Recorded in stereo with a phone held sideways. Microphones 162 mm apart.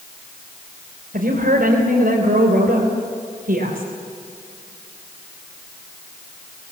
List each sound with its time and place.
1.1 s a woman speaking: 65° right (ahead or behind), 3.5 m